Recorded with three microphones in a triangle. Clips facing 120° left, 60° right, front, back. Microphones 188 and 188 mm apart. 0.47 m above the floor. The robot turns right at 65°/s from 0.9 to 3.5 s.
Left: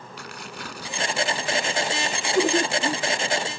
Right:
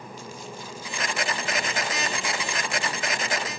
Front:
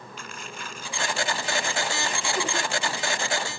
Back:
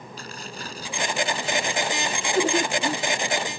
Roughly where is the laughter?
Behind left.